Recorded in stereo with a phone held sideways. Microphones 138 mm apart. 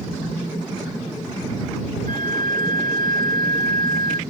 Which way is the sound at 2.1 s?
85° right.